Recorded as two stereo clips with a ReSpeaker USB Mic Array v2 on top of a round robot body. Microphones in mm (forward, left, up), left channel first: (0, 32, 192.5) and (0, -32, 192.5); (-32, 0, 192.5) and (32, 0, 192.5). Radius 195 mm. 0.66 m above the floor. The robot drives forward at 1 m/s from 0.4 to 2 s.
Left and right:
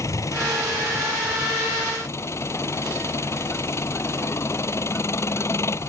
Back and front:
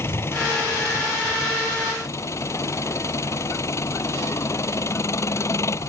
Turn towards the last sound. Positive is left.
turn(degrees=135)